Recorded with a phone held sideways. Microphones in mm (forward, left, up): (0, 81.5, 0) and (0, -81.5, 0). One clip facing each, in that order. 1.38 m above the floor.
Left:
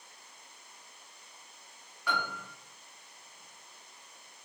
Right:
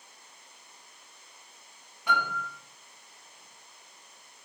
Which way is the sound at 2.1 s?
20° right (ahead or behind).